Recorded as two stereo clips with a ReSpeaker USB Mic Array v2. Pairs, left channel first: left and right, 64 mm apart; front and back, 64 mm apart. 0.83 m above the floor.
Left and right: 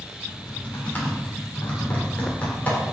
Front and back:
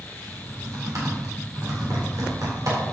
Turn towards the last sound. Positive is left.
turn(degrees=150)